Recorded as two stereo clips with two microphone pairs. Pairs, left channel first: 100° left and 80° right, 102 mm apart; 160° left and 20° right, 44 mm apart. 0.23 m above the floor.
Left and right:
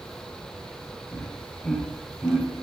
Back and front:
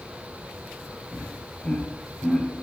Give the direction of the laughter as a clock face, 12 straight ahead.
8 o'clock.